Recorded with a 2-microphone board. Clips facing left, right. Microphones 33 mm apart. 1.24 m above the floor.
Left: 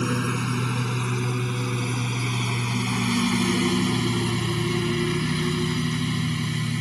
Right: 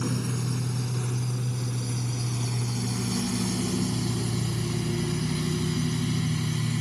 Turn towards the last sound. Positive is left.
turn(degrees=20)  # may be behind; listen again after turning